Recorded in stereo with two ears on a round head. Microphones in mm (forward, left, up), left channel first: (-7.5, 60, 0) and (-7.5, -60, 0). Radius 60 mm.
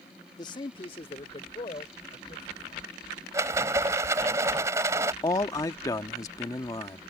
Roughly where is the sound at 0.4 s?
Left.